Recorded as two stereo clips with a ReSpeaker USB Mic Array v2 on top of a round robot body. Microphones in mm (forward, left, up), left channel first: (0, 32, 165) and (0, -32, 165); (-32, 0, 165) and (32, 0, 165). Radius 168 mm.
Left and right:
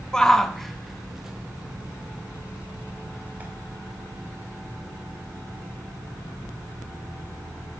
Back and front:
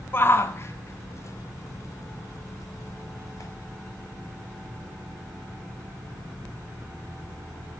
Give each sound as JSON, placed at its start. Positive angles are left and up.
{"t": 0.1, "sound": "a shout", "azimuth_deg": 165, "distance_m": 1.6}